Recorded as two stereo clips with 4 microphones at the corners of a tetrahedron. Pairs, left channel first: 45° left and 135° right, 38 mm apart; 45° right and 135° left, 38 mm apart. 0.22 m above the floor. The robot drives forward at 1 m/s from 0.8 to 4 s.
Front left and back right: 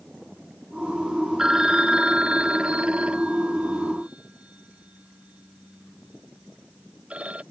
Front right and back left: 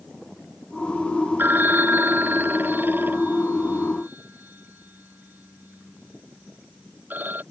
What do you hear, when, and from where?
1.4 s a phone ringing: 150° left; by 7.4 s 170° left